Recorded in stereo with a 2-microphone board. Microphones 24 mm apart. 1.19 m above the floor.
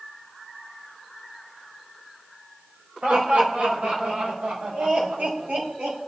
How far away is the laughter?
About 5 m.